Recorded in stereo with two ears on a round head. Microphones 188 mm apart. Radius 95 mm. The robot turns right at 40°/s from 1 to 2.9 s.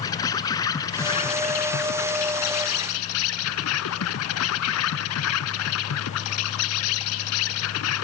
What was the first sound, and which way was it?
An insect, 15° left.